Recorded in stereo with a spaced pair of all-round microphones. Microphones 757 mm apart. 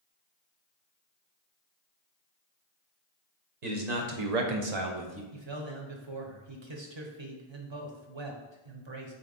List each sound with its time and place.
3.6 s a man speaking: 60° right (ahead or behind), 1.1 m; by 5.2 s 15° right (ahead or behind), 0.7 m
5.3 s a man speaking: 40° right (ahead or behind), 0.8 m